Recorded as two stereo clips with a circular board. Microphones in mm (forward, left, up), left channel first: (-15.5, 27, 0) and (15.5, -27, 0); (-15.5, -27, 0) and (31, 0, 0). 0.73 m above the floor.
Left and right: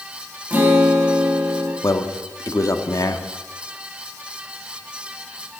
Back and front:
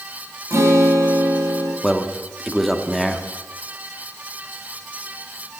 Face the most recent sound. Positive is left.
turn(degrees=120)